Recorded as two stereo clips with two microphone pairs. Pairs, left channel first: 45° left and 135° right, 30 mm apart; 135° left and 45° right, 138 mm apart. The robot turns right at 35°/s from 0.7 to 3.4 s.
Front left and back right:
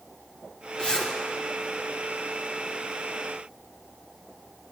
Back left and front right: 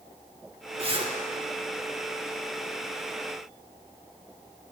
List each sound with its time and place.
0.8 s a zipper: 10° right, 2.5 m; by 1.1 s straight ahead, 2.5 m